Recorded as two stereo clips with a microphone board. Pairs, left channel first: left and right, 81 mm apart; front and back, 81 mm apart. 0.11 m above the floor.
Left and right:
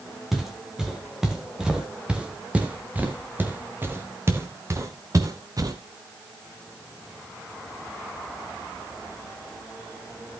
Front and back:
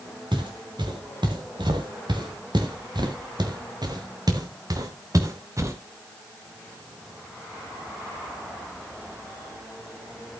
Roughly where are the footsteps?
Behind.